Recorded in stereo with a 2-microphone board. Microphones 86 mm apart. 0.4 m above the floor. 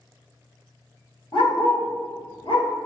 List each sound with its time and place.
1.3 s a dog barking: 75° left (ahead or behind), 1.8 m